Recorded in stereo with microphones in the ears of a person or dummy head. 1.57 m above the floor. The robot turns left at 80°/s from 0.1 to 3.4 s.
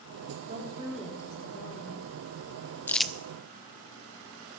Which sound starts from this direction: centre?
Crumpling, at 2.9 s.